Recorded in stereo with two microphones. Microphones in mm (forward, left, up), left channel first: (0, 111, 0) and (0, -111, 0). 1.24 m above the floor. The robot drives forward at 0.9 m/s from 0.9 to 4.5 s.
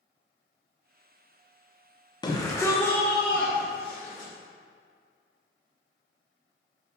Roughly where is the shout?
Centre.